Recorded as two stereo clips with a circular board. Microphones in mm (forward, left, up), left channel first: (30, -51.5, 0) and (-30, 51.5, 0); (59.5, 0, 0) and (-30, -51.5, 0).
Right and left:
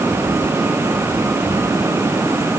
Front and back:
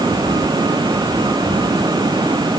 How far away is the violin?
I don't hear a violin.